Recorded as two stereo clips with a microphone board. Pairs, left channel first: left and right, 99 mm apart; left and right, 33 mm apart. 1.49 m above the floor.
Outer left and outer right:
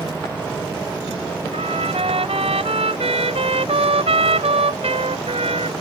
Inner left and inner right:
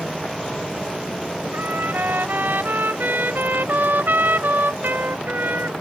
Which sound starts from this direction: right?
A trumpet, at 1.5 s.